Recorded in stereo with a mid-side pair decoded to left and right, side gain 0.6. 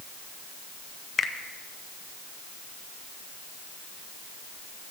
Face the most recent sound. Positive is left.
turn(degrees=35)